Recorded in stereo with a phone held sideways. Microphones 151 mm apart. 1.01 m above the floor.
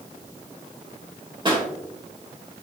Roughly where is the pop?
Right.